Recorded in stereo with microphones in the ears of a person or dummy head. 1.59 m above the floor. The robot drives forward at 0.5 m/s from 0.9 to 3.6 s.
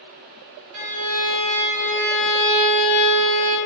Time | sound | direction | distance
0.7 | a violin | 65° right (ahead or behind) | 0.8 m